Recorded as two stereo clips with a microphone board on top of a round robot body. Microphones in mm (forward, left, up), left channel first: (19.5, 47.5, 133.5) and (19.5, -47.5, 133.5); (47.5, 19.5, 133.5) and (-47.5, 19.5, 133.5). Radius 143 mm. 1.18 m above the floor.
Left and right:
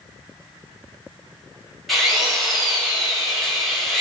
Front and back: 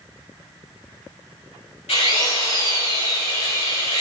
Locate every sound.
1.9 s a drill: straight ahead, 6 m